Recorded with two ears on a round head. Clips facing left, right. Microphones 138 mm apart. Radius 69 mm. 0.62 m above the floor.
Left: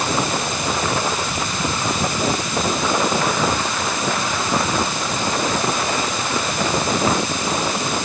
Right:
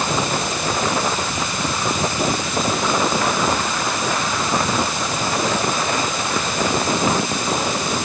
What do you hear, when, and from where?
Only background noise.